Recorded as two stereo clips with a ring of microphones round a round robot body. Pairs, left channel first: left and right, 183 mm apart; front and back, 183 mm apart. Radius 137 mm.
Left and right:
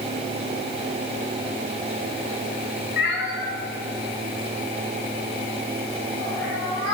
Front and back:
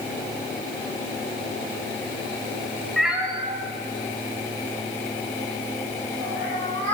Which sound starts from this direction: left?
A cat meowing, at 3.0 s.